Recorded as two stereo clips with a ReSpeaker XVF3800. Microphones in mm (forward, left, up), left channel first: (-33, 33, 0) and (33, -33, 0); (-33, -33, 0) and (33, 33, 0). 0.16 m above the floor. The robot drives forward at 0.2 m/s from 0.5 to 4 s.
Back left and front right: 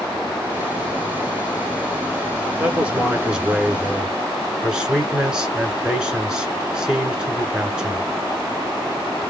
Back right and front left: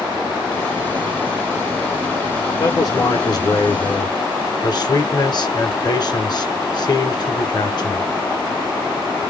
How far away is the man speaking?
About 1.7 m.